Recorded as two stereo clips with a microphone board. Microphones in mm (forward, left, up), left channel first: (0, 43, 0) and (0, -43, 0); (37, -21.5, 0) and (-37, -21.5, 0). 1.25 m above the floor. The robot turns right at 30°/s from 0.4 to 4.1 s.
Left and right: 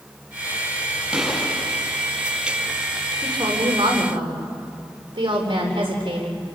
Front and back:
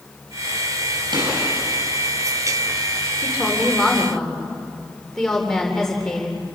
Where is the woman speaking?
110° right, 3.5 m; by 6.4 s 85° right, 3.5 m.